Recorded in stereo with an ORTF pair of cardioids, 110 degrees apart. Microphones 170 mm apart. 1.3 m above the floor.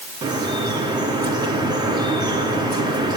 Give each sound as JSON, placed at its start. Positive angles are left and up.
{"t": 0.2, "sound": "dripping", "azimuth_deg": -25, "distance_m": 4.0}